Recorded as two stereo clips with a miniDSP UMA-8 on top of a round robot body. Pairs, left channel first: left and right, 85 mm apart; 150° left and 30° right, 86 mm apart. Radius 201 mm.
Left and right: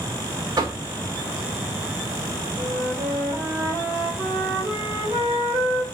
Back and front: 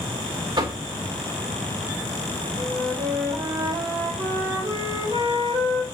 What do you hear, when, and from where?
0.6 s knocking: 50° right, 1.5 m
2.6 s a flute: 30° right, 5 m